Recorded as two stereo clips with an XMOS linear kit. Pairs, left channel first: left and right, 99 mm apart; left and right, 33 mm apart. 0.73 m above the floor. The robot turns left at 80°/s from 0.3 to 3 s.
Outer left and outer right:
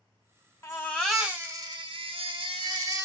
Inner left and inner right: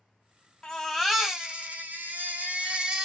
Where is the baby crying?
40° left, 1.3 m; by 3.0 s 150° right, 1.3 m.